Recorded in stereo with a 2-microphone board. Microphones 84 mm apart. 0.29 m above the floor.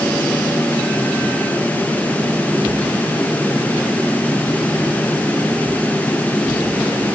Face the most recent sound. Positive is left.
No sound to turn to.